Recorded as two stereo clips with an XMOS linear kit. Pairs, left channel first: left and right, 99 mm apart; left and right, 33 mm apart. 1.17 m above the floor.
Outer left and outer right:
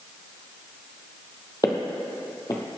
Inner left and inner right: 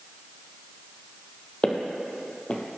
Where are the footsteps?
40° left (ahead or behind), 1.5 m.